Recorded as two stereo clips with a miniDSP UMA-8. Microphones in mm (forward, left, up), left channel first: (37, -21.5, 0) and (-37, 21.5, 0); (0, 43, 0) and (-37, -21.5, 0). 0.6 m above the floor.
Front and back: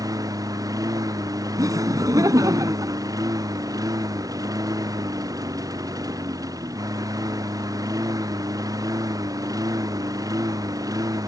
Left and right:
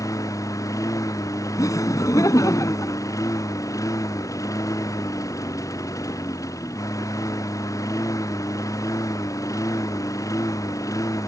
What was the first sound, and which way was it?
A lawn mower, 105° left.